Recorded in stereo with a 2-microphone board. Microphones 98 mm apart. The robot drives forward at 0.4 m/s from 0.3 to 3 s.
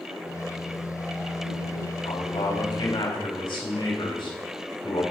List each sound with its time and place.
2.0 s a man speaking: 55° left (ahead or behind), 4.5 m; by 5.0 s 50° left (ahead or behind), 5 m